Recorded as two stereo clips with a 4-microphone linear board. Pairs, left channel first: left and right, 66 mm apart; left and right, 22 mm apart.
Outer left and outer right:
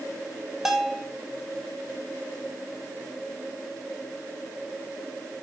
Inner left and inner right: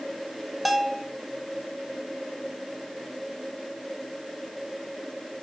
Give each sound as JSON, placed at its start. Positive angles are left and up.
{"t": 0.7, "sound": "a bell", "side_deg": -10, "distance_m": 0.9}